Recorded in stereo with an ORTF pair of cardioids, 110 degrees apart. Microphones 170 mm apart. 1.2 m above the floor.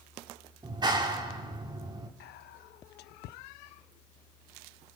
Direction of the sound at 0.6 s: 25° right.